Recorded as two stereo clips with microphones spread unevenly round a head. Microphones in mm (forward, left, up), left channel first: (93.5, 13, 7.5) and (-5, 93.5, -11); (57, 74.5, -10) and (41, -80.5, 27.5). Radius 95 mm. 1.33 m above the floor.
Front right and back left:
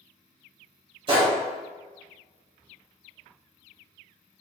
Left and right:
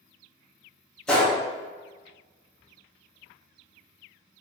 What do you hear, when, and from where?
1.1 s a gunshot: 175° right, 0.7 m